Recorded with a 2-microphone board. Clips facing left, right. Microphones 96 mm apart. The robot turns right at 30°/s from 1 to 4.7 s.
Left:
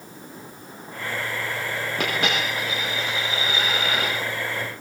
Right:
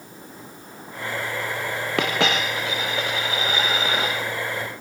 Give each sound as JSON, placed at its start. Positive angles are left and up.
{"t": 2.0, "sound": "a dropped coin", "azimuth_deg": -90, "distance_m": 6.5}